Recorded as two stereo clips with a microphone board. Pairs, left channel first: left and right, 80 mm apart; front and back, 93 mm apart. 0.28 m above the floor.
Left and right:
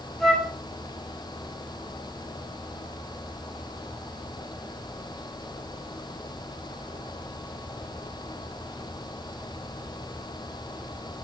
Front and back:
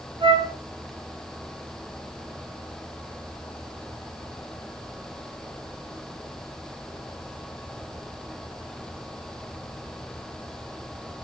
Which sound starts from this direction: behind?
A flute, at 0.2 s.